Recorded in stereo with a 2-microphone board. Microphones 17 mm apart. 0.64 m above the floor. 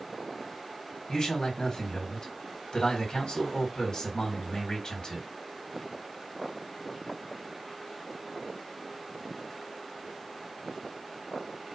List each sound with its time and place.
1.1 s a man speaking: 60° left (ahead or behind), 1.9 m